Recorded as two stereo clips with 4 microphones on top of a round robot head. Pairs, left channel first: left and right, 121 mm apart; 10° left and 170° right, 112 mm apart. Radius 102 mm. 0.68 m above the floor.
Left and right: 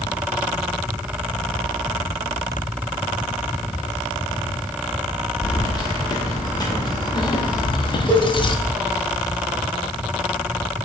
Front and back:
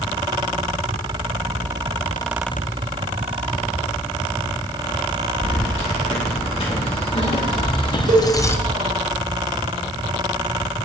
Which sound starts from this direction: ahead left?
Keys jangling, at 5.4 s.